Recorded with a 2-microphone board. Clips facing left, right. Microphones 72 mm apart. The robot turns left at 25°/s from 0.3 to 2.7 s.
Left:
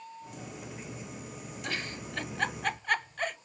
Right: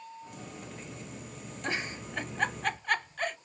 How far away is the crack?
I don't hear a crack.